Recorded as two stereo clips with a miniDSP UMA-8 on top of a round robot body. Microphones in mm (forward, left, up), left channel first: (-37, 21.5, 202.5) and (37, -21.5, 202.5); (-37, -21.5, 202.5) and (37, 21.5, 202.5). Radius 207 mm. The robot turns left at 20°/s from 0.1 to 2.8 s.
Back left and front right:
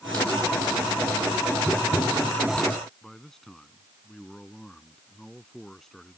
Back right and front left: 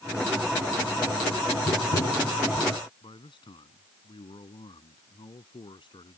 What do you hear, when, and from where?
1.7 s tapping: 135° right; by 2.7 s 155° right
3.0 s a man speaking: 125° right